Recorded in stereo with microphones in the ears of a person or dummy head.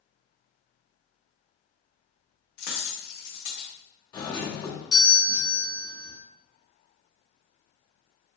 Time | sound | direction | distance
2.6 | a dropped coin | 50° left (ahead or behind) | 1.5 m
4.1 | a doorbell | 25° left (ahead or behind) | 0.8 m